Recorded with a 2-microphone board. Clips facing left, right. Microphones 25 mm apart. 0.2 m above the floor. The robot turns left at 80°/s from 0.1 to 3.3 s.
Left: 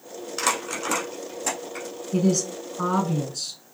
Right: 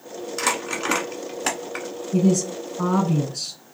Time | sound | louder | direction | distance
0.4 | crumpling | right 1 dB | 5° left (ahead or behind) | 1.1 m
2.1 | a woman speaking | right 3 dB | 70° left | 1.9 m